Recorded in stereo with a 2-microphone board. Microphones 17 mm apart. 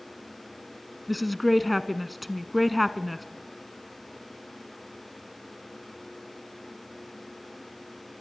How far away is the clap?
No clap in this recording.